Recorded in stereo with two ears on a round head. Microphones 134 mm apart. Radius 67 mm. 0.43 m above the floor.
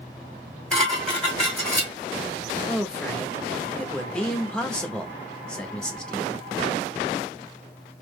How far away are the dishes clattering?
About 1.6 m.